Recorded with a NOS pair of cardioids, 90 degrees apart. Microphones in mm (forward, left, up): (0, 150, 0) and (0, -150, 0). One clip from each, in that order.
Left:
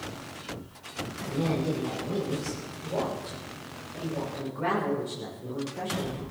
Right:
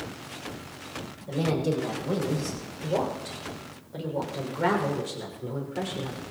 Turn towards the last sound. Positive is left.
turn(degrees=-65)